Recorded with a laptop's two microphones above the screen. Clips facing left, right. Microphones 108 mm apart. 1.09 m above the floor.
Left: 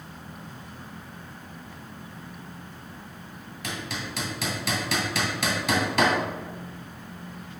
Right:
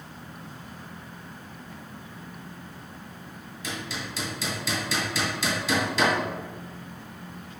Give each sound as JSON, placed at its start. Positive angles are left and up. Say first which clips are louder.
{"t": 3.6, "sound": "hammering", "louder": "left 1 dB", "side_deg": 60, "distance_m": 1.8}